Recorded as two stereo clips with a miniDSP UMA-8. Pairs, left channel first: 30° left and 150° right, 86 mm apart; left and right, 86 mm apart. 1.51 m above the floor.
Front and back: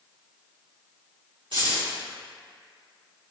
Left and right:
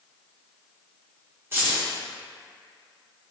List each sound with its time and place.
1.5 s keys jangling: 150° right, 1.4 m